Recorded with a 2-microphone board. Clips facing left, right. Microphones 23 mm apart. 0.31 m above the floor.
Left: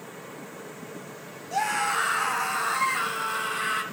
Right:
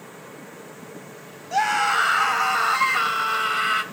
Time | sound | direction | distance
1.5 | a scream | 30° right (ahead or behind) | 1.9 m